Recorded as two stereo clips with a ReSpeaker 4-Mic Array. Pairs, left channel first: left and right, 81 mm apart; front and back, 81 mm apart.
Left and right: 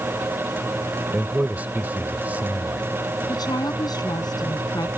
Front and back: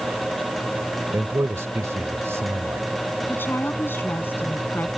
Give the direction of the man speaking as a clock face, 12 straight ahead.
5 o'clock.